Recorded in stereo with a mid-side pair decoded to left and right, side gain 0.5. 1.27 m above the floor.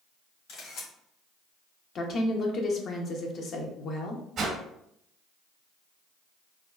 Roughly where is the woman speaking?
Ahead left.